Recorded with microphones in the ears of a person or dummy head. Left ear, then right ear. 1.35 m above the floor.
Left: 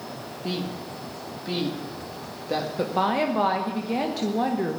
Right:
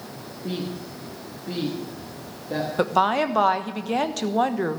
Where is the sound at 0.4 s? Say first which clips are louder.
Even; 75° left (ahead or behind), 2.0 m.